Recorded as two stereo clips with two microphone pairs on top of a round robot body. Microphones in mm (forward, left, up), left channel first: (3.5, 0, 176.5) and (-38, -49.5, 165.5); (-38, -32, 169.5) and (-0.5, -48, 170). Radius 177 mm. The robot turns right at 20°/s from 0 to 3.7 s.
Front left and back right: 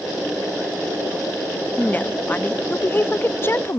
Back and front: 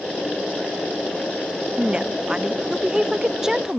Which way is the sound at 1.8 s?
10° right.